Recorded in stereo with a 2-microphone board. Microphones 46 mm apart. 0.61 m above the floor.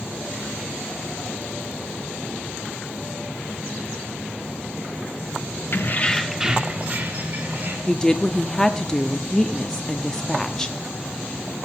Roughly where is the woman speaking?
Centre.